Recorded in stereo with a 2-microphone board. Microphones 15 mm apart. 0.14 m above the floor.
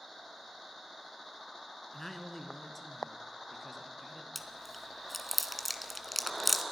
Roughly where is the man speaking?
Centre.